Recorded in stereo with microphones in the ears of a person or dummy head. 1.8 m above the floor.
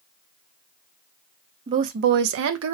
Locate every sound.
1.7 s a woman speaking: 25° right (ahead or behind), 0.5 m; by 2.8 s 75° right (ahead or behind), 0.8 m